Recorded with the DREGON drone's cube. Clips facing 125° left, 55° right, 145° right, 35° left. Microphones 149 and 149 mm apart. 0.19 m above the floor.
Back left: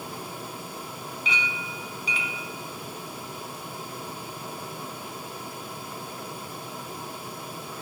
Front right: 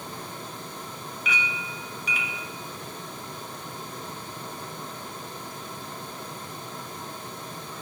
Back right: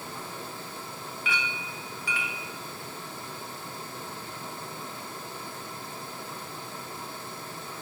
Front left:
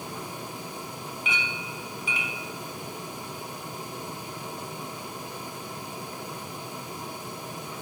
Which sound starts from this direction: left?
A clink, at 1.2 s.